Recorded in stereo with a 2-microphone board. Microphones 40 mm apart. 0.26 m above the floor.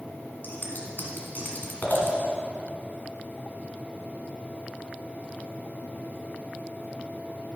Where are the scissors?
55° left (ahead or behind), 1.8 m.